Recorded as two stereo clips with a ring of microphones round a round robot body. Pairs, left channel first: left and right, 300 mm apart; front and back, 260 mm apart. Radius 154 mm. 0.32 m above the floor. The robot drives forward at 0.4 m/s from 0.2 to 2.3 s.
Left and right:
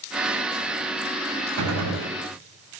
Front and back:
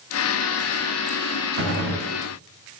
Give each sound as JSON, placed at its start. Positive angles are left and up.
{"t": 1.6, "sound": "a gunshot", "azimuth_deg": -130, "distance_m": 2.0}